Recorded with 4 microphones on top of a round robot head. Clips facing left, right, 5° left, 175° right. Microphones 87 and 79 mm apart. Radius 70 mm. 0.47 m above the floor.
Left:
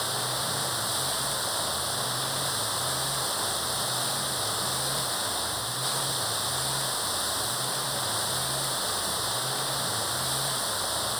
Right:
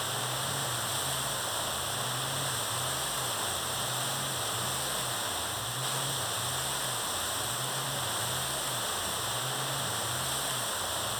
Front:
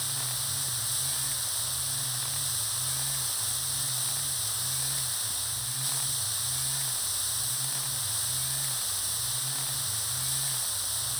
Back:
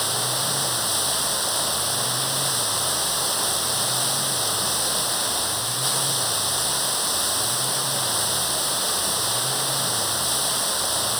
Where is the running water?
170° left.